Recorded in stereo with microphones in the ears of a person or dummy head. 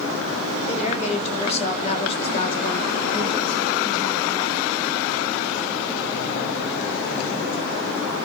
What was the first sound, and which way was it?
A woman speaking, 40° left (ahead or behind).